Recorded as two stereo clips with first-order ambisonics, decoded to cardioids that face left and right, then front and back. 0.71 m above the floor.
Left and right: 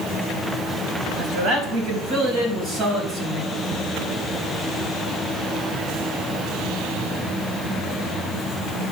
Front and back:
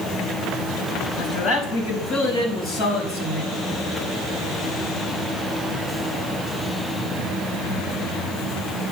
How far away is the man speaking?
About 5.5 m.